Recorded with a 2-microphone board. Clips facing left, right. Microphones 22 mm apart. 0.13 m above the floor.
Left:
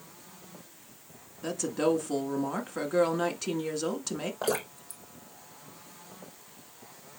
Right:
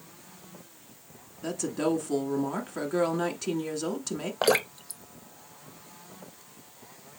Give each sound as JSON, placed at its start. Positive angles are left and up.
{"t": 1.4, "sound": "a woman speaking", "side_deg": 5, "distance_m": 1.2}
{"t": 4.4, "sound": "dripping", "side_deg": -65, "distance_m": 0.5}